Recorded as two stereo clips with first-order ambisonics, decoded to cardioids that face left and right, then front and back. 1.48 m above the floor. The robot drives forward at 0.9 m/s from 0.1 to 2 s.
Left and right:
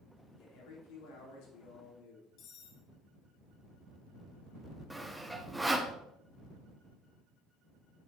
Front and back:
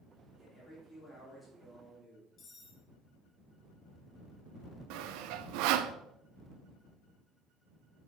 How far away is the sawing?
About 0.6 m.